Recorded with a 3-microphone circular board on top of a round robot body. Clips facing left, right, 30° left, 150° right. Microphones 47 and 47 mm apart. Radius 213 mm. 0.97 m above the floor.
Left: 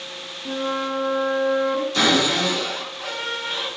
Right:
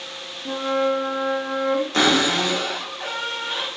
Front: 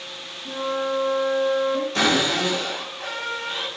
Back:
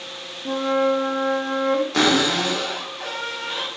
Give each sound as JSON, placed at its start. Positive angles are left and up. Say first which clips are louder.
{"t": 0.5, "sound": "a flute", "louder": "right 3 dB, back 5 dB", "azimuth_deg": -170, "distance_m": 1.0}
{"t": 1.9, "sound": "a cupboard door", "louder": "even, back 1 dB", "azimuth_deg": -140, "distance_m": 2.5}